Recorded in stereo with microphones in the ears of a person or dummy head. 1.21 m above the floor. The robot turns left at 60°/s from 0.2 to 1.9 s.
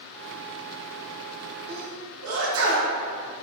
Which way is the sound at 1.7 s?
80° right.